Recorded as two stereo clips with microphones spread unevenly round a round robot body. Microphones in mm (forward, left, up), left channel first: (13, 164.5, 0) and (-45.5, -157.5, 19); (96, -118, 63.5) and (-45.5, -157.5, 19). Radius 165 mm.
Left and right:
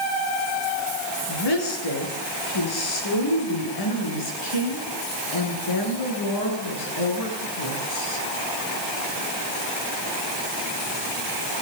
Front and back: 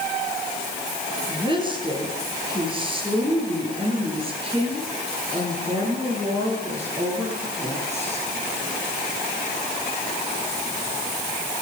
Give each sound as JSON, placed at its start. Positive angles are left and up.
{"t": 1.3, "sound": "a woman speaking", "azimuth_deg": 90, "distance_m": 9.5}